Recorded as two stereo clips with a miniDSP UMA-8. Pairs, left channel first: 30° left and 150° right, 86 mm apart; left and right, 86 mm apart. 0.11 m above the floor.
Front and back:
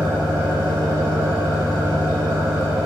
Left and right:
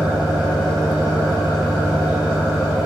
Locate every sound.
0.0 s an engine running: 160° right, 1.7 m